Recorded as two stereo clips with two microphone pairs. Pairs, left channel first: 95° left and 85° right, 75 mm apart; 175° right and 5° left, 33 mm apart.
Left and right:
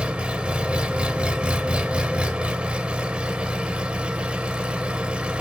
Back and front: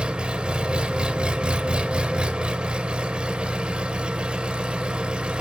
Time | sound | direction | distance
0.0 | an engine running | 20° right | 1.1 m